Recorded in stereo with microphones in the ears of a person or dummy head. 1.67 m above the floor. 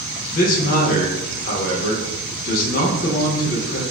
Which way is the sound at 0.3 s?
50° left (ahead or behind).